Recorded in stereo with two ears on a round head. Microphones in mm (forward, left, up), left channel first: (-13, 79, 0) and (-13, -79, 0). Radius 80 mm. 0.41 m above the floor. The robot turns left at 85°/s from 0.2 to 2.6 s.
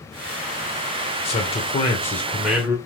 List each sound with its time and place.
1.2 s a man speaking: 95° left, 1.4 m; by 2.8 s 20° right, 1.4 m